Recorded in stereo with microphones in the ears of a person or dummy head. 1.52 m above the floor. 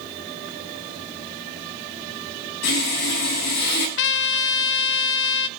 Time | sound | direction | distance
2.6 | sawing | 55° left (ahead or behind) | 10 m
4.0 | a trumpet | 65° left (ahead or behind) | 0.6 m